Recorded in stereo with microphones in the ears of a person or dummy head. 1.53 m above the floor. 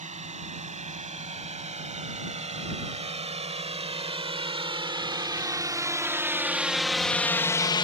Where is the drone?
35° right (ahead or behind); by 7.8 s 25° left (ahead or behind).